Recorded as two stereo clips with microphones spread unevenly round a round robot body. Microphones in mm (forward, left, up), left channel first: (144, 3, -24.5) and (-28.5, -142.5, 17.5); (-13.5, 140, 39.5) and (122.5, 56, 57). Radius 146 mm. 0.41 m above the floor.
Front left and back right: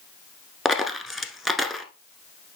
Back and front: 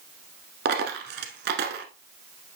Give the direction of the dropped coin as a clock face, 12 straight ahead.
2 o'clock.